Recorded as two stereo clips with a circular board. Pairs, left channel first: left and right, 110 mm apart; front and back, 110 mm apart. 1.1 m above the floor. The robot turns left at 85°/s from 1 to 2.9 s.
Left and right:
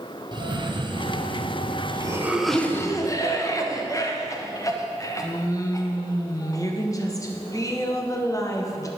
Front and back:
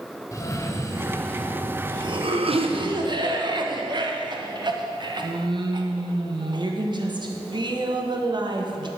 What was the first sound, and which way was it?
A cough, 55° right.